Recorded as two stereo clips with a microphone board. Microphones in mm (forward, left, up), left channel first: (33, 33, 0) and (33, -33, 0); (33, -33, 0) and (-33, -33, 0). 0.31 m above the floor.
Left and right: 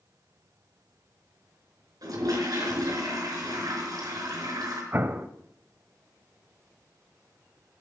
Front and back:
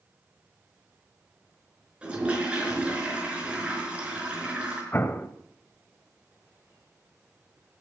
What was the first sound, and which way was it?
A toilet flushing, 105° right.